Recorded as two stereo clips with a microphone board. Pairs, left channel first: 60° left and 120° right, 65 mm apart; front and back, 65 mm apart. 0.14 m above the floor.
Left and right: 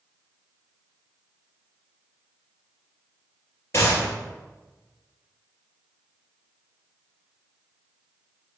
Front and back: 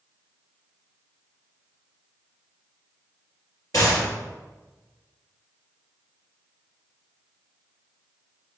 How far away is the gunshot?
About 2 m.